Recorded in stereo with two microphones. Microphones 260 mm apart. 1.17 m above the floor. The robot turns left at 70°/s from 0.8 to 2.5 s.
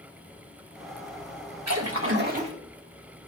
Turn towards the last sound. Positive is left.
turn(degrees=-160)